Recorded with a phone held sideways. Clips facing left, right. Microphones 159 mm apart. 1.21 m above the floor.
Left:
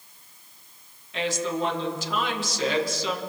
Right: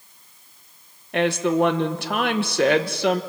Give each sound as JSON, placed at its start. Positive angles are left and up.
{"t": 1.1, "sound": "a woman speaking", "side_deg": -65, "distance_m": 1.2}